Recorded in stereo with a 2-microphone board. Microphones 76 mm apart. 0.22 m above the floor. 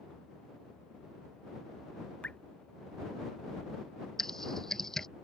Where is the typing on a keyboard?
5° left (ahead or behind).